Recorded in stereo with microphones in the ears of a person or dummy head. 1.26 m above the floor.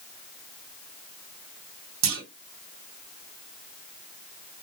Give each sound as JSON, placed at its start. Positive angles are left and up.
{"t": 2.0, "sound": "a clunk", "side_deg": -70, "distance_m": 1.6}